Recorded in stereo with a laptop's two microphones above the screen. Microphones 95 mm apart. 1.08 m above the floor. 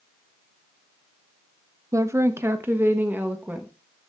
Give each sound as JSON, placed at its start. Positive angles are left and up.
{"t": 1.9, "sound": "a woman speaking", "side_deg": -35, "distance_m": 0.6}